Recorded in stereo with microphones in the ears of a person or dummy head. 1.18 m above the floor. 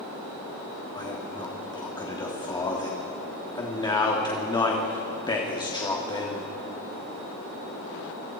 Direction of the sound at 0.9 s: 20° left (ahead or behind).